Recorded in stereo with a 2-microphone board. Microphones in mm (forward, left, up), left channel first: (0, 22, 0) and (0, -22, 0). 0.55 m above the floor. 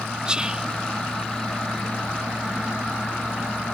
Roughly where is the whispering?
Right.